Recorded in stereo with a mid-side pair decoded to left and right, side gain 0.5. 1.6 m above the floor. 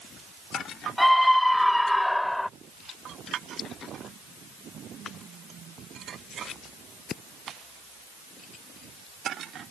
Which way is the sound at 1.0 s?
5° left.